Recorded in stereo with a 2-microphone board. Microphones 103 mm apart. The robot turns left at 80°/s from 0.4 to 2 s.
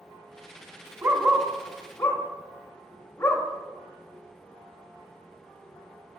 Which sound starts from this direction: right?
A dog barking, at 1.0 s.